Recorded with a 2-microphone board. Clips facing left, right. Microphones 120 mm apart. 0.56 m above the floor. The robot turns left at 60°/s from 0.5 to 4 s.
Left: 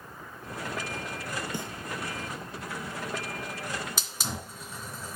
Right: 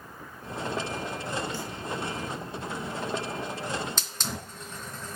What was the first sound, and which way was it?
A snare drum, 20° left (ahead or behind).